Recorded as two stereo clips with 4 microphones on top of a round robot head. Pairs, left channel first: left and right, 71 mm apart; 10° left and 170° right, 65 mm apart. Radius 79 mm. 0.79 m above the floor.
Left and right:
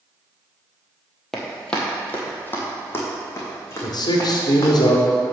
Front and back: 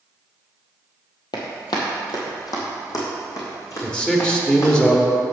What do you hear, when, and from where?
1.3 s running footsteps: 5° left, 1.4 m; by 4.7 s 40° left, 4 m
3.8 s a man speaking: 85° left, 1.6 m